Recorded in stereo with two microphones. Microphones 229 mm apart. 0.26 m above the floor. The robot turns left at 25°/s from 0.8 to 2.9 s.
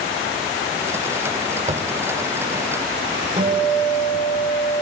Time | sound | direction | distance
1.7 | tapping | 30° right (ahead or behind) | 0.5 m
3.4 | a guitar | 20° right (ahead or behind) | 7 m